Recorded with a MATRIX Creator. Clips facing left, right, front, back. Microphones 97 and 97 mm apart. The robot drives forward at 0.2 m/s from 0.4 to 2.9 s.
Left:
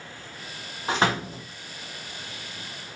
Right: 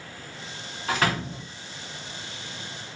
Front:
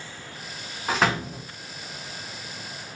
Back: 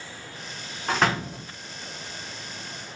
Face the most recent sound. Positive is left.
turn(degrees=140)